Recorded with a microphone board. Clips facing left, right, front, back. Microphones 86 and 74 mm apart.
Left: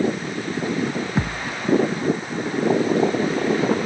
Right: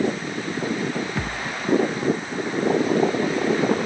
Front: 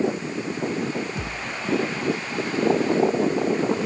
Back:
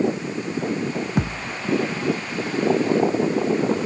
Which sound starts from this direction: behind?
A thud, at 1.2 s.